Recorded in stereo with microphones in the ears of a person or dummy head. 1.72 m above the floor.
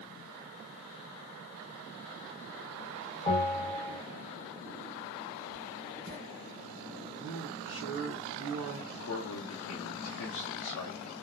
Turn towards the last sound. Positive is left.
turn(degrees=80)